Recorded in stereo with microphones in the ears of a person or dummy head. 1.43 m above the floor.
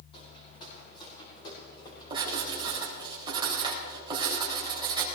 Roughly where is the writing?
Right.